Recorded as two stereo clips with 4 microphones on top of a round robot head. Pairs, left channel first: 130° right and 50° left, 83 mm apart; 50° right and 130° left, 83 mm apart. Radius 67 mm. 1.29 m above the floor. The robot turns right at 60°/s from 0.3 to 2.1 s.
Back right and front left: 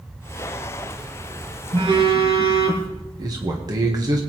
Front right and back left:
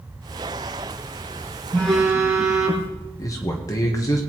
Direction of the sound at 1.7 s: 30° left.